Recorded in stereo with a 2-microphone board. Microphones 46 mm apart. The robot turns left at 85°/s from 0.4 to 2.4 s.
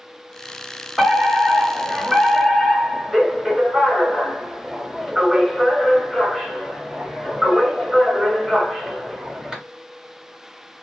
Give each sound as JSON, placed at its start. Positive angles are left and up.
{"t": 1.0, "sound": "a fire alarm", "side_deg": -10, "distance_m": 1.9}